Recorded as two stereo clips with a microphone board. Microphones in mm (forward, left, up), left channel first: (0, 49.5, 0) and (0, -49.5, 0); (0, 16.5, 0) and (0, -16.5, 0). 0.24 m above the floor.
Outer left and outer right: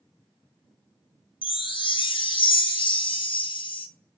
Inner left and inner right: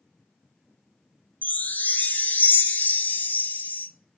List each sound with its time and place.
1.4 s a chime: 60° left (ahead or behind), 0.6 m